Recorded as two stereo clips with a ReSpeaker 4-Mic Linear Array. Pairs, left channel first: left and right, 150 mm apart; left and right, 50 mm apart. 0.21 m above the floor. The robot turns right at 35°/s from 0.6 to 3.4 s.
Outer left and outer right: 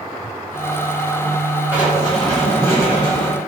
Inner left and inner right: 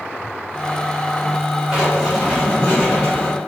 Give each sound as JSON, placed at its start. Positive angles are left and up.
{"t": 1.7, "sound": "writing", "azimuth_deg": -15, "distance_m": 2.0}